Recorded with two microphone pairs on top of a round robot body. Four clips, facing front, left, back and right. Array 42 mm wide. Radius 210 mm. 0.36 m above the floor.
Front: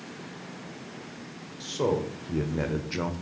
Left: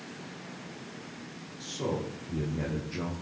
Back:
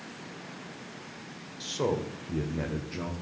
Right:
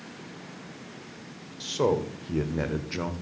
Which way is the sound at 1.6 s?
85° right.